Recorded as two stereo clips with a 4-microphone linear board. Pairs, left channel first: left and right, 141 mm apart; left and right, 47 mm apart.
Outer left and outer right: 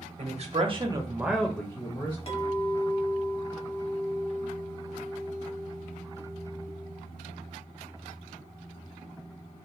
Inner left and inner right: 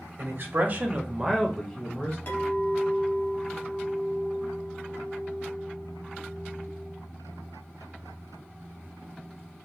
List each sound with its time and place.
0.2 s a man speaking: 55° right (ahead or behind), 0.7 m; by 2.2 s 35° left (ahead or behind), 0.7 m
2.3 s a clink: 45° left (ahead or behind), 0.8 m